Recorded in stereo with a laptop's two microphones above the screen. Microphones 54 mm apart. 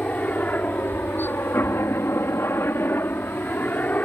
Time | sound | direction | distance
0.0 | a helicopter | 30° left (ahead or behind) | ?